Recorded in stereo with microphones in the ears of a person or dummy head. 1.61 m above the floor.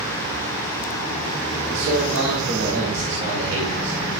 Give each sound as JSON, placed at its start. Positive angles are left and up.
{"t": 1.7, "sound": "a man speaking", "side_deg": -65, "distance_m": 1.9}